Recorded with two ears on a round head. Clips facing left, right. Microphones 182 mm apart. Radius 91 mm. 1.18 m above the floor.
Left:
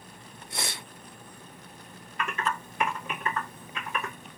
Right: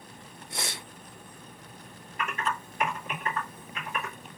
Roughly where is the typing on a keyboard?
Left.